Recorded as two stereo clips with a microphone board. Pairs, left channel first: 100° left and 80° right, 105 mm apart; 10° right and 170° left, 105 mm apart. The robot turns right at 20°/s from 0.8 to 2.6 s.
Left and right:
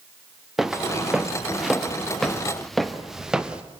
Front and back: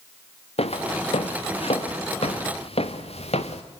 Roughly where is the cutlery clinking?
No cutlery clinking in this recording.